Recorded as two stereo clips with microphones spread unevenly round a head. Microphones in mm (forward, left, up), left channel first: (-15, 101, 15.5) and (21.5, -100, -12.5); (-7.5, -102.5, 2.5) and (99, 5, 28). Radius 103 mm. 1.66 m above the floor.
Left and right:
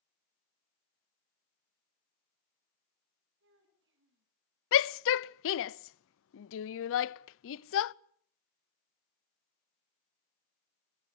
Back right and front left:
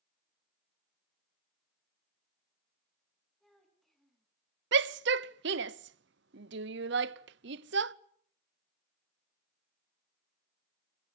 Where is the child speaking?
45° right, 8.5 m.